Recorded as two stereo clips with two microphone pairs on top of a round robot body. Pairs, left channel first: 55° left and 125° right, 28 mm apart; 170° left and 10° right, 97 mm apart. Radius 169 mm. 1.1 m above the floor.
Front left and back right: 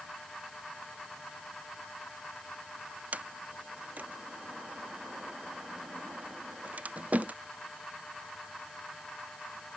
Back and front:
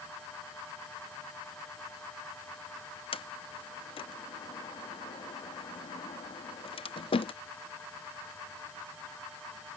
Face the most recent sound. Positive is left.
turn(degrees=-160)